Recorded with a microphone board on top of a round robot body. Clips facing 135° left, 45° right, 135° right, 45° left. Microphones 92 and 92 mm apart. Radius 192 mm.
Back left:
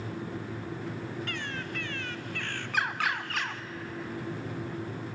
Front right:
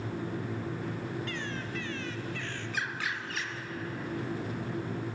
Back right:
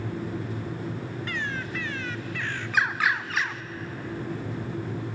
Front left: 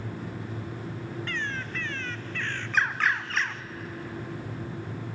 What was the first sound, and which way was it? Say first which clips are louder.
A bird: even, back right 2 dB; 145° left.